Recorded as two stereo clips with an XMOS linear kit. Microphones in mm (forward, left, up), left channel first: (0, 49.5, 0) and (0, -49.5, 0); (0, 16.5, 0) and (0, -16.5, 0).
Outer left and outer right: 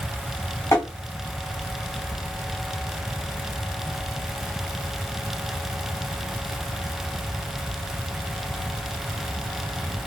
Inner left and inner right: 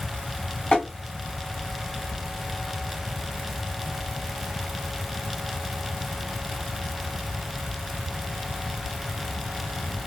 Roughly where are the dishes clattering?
No dishes clattering in this recording.